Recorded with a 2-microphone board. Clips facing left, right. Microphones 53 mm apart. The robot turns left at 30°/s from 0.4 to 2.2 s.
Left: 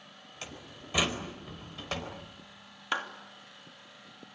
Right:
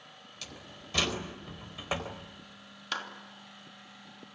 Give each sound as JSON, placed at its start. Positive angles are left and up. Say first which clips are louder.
{"t": 0.4, "sound": "a door slam", "louder": "left 3 dB", "side_deg": 30, "distance_m": 4.0}
{"t": 2.9, "sound": "a clap", "louder": "left 4 dB", "side_deg": 20, "distance_m": 3.0}